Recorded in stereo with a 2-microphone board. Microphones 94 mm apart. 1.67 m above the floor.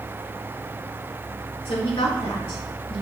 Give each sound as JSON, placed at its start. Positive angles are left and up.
{"t": 1.6, "sound": "a woman speaking", "side_deg": 70, "distance_m": 3.0}